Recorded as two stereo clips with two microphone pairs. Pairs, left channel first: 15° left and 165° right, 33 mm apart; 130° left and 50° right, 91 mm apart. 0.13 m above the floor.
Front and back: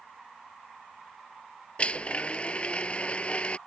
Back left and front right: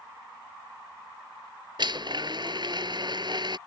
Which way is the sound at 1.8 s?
35° right.